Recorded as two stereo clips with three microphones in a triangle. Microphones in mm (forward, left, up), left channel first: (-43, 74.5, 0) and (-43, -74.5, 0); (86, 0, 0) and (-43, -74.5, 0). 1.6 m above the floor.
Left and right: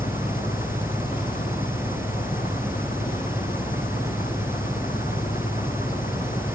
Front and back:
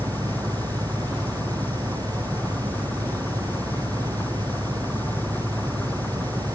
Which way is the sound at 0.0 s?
110° left.